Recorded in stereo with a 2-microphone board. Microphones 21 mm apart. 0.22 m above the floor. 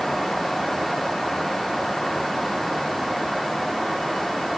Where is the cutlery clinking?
No cutlery clinking in this recording.